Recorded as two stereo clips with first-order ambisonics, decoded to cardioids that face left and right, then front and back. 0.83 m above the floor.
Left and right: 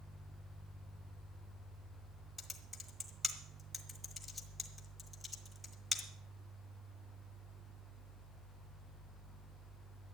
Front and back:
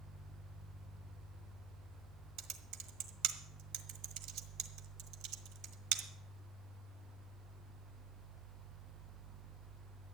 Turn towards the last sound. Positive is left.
turn(degrees=170)